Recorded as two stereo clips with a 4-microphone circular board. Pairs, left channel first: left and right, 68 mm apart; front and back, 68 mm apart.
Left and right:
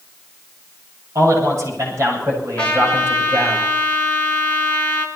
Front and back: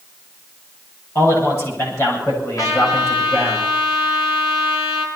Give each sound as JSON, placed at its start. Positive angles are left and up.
{"t": 1.1, "sound": "a man speaking", "azimuth_deg": -40, "distance_m": 7.5}
{"t": 2.6, "sound": "a trumpet", "azimuth_deg": 25, "distance_m": 3.0}